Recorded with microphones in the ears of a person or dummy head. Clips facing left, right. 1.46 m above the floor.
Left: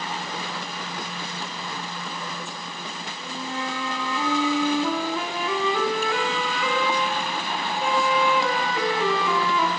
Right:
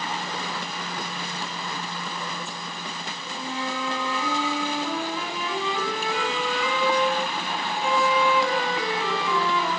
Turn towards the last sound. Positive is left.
turn(degrees=45)  # may be behind; listen again after turning